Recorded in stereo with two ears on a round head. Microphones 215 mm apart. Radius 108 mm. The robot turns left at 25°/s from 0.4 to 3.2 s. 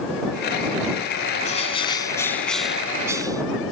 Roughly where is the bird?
Ahead left.